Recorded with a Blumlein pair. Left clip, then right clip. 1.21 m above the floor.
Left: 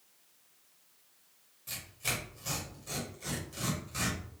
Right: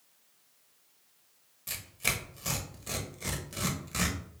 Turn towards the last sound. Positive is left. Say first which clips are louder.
# right 4 dB
turn(degrees=-60)